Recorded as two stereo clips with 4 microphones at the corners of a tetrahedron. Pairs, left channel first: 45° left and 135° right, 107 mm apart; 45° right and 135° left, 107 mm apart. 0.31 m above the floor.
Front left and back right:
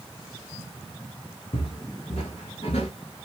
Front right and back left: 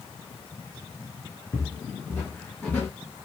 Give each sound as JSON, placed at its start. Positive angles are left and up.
{"t": 1.5, "sound": "footsteps", "azimuth_deg": 20, "distance_m": 1.1}